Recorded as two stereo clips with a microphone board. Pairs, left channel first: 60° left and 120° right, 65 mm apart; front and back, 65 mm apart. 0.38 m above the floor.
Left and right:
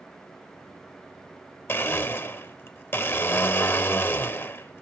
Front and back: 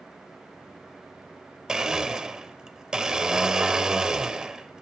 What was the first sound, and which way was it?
A blender, 105° left.